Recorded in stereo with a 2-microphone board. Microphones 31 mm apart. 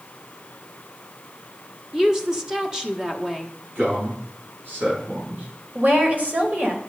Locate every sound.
1.9 s a woman speaking: 15° right (ahead or behind), 1.2 m
3.8 s a man speaking: 80° right, 5.5 m
5.8 s a woman speaking: 55° right (ahead or behind), 2.5 m